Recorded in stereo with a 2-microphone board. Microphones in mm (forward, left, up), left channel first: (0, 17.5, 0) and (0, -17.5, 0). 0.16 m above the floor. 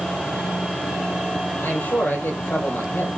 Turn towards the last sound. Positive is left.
turn(degrees=75)  # may be behind; listen again after turning